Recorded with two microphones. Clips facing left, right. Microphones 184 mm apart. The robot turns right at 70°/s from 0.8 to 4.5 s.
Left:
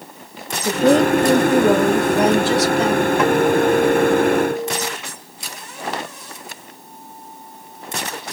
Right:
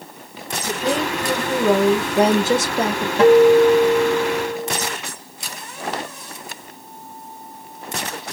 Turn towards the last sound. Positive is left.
turn(degrees=50)